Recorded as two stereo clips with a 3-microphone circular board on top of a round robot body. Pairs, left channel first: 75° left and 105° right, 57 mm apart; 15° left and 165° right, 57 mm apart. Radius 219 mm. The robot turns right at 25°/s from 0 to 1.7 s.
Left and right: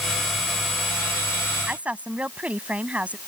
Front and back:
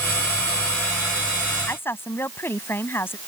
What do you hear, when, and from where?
1.7 s a woman speaking: 40° right; by 3.2 s 35° right